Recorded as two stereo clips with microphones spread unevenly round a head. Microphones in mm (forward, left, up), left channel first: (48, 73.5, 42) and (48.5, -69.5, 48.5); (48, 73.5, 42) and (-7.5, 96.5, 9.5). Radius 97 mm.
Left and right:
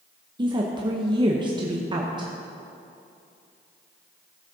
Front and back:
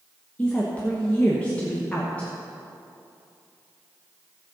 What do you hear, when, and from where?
0.4 s a woman speaking: 125° right, 1.0 m